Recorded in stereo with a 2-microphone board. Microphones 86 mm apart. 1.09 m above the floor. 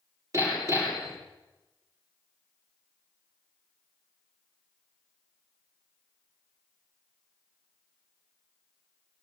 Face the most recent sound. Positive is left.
turn(degrees=-40)  # may be behind; listen again after turning